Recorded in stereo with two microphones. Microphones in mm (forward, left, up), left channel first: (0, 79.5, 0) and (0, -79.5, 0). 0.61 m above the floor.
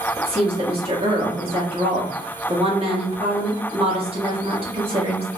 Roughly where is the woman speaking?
Right.